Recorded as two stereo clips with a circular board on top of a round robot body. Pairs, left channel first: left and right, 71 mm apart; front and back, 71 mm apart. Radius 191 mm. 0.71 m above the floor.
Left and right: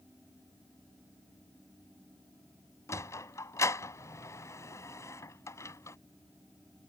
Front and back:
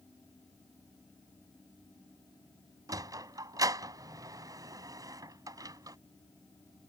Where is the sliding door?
140° left.